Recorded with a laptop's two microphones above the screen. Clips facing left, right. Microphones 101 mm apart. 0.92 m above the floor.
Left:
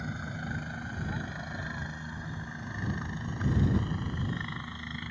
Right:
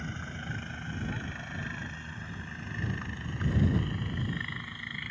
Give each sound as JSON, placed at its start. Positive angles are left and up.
{"t": 0.0, "sound": "a helicopter", "side_deg": 10}